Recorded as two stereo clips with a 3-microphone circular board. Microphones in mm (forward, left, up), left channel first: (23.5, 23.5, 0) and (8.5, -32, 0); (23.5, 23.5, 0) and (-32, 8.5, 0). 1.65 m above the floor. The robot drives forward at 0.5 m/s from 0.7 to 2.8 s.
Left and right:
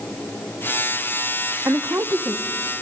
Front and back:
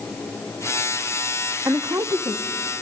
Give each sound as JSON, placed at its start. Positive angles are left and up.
{"t": 1.6, "sound": "a woman speaking", "azimuth_deg": -135, "distance_m": 0.6}